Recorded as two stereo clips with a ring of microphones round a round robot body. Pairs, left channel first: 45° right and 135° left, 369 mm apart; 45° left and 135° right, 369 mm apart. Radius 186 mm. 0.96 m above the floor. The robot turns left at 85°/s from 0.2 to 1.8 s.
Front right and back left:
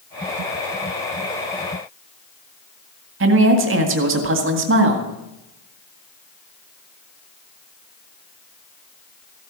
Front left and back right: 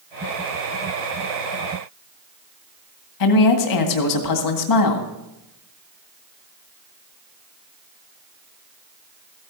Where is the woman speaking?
80° left, 1.9 m.